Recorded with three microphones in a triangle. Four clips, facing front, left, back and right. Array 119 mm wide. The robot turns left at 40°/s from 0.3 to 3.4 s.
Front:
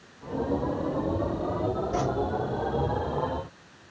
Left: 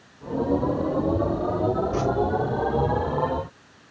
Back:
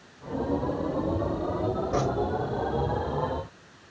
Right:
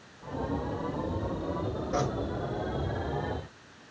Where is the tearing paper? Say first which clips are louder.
Left 3 dB, back 2 dB; 170° left, 6 m; by 2.0 s 165° left, 6 m.